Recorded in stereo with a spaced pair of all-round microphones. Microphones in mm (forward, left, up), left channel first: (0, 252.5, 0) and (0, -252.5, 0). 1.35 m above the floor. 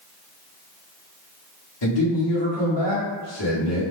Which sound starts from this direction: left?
A man speaking, at 1.8 s.